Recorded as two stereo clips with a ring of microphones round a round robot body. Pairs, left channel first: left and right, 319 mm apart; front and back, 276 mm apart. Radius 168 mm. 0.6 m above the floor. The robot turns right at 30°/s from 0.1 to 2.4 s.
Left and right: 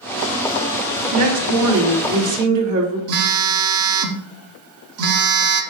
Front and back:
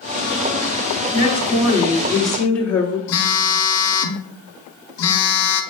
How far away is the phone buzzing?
About 0.8 m.